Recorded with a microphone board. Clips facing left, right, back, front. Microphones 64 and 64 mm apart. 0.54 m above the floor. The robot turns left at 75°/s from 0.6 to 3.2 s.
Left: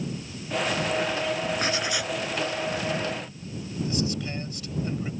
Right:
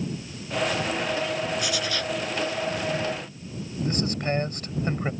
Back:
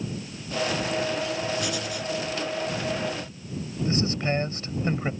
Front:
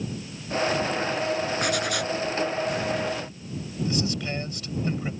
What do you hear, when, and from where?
1.6 s writing: 40° left; by 2.2 s straight ahead
3.9 s a man speaking: 125° right